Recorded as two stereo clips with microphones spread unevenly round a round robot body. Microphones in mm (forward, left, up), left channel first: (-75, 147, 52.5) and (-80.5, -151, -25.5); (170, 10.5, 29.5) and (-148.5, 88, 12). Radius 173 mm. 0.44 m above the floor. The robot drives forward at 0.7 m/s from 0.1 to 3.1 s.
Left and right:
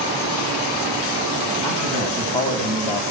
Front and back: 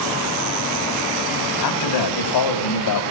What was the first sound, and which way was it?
A man speaking, 10° left.